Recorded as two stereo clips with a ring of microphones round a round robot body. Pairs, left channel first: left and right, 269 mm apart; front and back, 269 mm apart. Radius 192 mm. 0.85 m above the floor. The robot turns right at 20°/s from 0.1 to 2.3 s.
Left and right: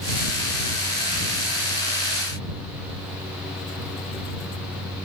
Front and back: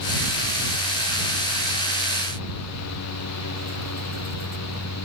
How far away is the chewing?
No chewing in this recording.